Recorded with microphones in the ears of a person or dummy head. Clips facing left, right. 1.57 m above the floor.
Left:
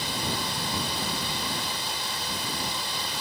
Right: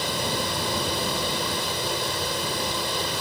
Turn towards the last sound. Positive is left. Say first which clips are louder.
# right 4 dB
turn(degrees=-55)  # may be behind; listen again after turning